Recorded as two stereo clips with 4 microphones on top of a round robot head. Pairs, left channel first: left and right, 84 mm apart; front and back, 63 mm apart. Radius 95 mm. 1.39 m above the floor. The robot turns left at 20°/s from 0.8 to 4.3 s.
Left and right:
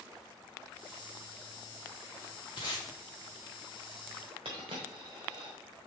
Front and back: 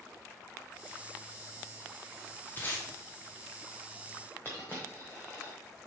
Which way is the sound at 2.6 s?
45° left.